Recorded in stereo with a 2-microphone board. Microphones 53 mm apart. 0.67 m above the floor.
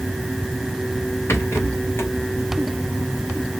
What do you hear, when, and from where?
1.3 s a rattle: 50° left (ahead or behind), 1.2 m